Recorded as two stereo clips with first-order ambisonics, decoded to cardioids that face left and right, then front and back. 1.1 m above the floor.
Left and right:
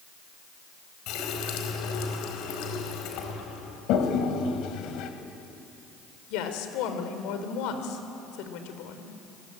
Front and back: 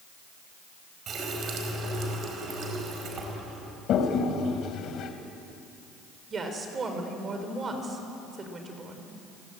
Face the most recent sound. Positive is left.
turn(degrees=110)